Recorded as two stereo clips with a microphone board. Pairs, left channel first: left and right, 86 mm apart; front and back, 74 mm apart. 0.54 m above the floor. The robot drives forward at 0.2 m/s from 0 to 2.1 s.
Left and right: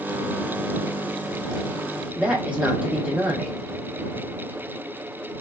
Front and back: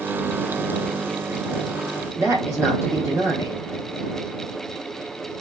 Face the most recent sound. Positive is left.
turn(degrees=-160)